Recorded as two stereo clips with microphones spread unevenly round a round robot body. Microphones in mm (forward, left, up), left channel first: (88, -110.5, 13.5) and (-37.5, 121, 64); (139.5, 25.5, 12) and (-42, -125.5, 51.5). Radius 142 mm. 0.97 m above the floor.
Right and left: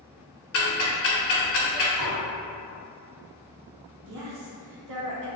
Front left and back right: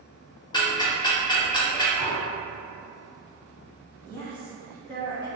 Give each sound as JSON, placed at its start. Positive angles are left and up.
{"t": 0.5, "sound": "ticking", "azimuth_deg": -35, "distance_m": 0.8}
{"t": 2.0, "sound": "dishes clattering", "azimuth_deg": 130, "distance_m": 1.0}
{"t": 4.1, "sound": "a woman speaking", "azimuth_deg": 120, "distance_m": 0.9}